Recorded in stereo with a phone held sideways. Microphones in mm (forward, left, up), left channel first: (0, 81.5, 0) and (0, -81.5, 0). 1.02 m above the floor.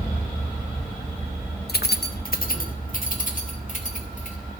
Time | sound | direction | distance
1.7 | keys jangling | 80° left | 0.7 m